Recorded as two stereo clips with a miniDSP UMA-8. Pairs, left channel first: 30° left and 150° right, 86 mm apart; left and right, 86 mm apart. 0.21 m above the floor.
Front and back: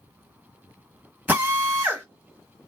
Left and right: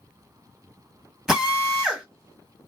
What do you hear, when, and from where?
1.3 s a drill: 170° right, 1.2 m